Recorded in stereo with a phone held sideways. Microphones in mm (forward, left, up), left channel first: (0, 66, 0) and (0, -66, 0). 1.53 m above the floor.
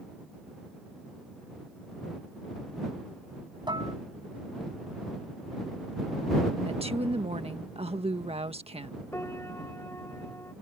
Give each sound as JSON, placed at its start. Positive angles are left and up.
{"t": 3.7, "sound": "dishes clattering", "side_deg": -35}
{"t": 6.7, "sound": "a woman speaking", "side_deg": -50}
{"t": 9.1, "sound": "a piano", "side_deg": 20}